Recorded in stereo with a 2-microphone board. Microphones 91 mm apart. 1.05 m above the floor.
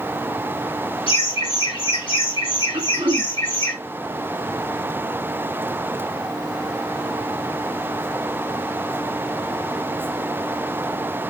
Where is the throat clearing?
65° right (ahead or behind), 2.5 m.